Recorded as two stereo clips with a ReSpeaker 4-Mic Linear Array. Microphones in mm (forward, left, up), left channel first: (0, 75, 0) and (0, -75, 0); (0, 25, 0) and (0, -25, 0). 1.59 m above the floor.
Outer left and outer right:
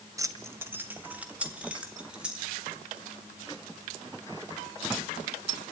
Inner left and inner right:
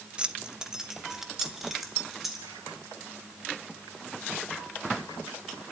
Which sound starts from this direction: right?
Keys jangling, at 0.2 s.